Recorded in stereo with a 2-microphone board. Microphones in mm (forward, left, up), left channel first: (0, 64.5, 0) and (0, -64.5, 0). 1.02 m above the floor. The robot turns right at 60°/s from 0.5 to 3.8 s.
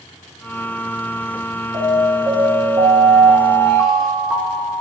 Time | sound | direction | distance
1.7 | an alarm | 120° right | 3.5 m